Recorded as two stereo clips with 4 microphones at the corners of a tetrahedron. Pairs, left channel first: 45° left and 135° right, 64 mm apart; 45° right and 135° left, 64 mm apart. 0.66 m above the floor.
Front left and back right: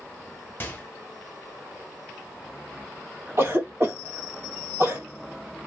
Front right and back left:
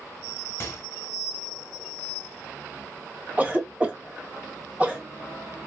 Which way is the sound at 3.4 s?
165° right.